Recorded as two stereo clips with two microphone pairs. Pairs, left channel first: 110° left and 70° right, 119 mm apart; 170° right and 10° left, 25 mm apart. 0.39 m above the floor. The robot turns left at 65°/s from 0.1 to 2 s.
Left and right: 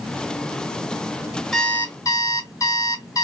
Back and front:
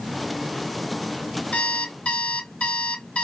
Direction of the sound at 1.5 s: 160° right.